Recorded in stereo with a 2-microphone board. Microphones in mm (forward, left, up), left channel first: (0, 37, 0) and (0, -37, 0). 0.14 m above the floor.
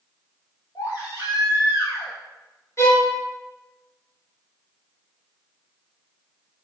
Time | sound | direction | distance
0.8 | a baby crying | 70° left (ahead or behind) | 3 m
2.8 | a violin | 40° left (ahead or behind) | 2.5 m